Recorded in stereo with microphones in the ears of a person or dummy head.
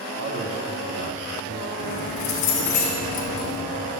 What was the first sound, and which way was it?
A man speaking, 55° right (ahead or behind).